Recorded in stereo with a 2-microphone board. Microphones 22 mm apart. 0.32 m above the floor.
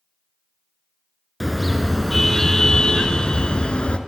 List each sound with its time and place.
1.4 s a car horn: centre (ahead or behind), 3 m; by 4.0 s 60° left (ahead or behind), 3 m